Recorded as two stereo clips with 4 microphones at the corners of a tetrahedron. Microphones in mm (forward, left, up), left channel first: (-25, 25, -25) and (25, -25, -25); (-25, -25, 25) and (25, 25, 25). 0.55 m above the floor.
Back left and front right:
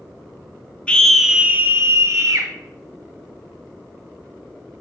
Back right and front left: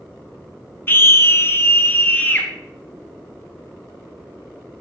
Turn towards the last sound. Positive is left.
turn(degrees=-75)